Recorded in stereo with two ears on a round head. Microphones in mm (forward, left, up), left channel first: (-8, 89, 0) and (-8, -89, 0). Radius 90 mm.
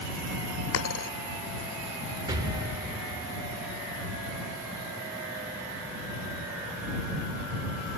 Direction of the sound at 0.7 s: 75° left (ahead or behind).